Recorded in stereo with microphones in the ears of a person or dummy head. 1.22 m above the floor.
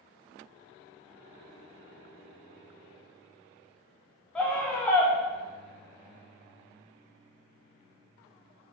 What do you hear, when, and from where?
4.3 s a scream: 10° left (ahead or behind), 1.0 m